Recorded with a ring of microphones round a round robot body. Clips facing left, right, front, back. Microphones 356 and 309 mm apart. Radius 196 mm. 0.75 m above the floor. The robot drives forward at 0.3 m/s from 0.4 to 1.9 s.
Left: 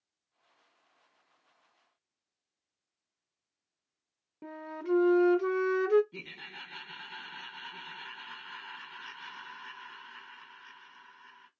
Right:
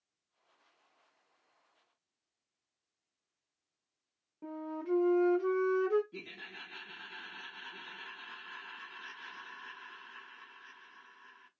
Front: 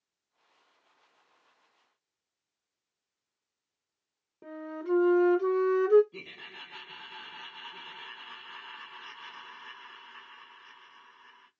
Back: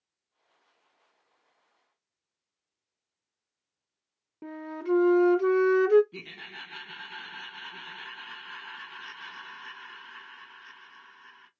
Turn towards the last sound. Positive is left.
turn(degrees=155)